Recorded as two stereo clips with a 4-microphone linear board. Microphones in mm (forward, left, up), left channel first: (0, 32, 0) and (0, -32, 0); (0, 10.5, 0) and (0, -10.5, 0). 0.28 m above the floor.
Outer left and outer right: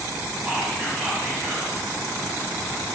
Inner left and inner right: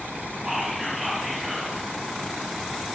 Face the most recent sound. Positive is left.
turn(degrees=-20)  # may be behind; listen again after turning